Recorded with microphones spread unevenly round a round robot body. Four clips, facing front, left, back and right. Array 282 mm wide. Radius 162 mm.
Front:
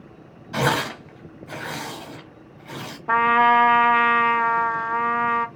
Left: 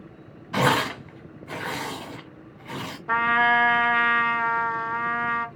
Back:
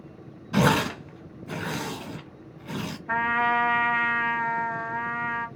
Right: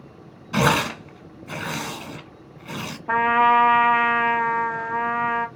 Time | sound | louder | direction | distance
0.5 | tearing paper | right 2 dB, even | 170° right | 0.9 m
3.1 | a trumpet | right 4 dB, front 8 dB | 20° right | 2.0 m